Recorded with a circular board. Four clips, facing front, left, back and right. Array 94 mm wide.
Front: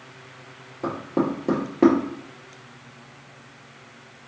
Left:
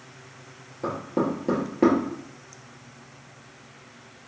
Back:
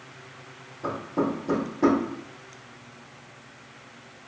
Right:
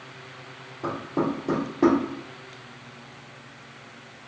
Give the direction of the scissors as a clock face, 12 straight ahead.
I don't hear scissors.